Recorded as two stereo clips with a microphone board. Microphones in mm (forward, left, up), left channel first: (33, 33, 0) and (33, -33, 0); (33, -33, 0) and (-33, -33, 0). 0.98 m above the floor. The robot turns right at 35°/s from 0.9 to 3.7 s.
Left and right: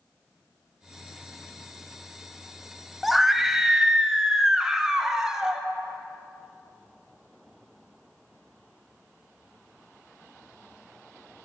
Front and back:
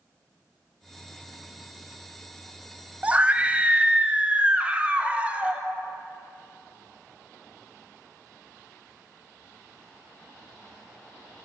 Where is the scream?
Straight behind, 0.5 m; by 5.6 s 155° right, 0.5 m.